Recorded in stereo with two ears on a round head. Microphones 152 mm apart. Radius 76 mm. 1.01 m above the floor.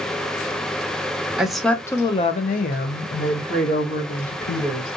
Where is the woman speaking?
5° right (ahead or behind), 0.7 m; by 4.9 s 55° left (ahead or behind), 1.8 m.